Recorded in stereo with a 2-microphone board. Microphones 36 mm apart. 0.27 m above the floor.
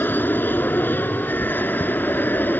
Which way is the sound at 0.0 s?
65° left (ahead or behind).